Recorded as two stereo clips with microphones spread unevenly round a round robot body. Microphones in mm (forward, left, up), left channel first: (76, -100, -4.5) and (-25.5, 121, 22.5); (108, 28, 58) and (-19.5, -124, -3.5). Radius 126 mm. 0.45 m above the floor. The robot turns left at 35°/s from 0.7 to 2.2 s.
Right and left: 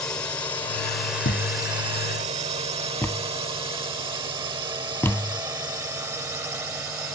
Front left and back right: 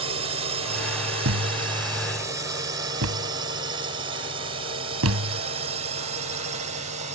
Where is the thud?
115° right; by 5.4 s 150° right.